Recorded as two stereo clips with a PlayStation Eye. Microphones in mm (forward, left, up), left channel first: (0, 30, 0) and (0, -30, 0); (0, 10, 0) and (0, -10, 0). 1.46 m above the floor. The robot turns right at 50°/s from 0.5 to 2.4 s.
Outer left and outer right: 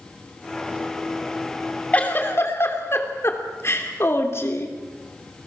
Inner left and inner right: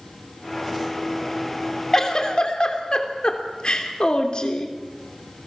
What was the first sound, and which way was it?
A giggle, 25° left (ahead or behind).